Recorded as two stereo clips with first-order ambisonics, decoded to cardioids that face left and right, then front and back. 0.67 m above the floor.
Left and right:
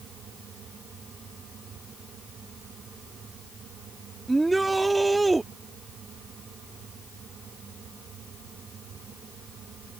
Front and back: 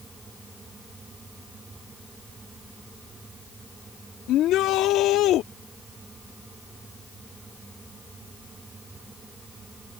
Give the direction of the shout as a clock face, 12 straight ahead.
12 o'clock.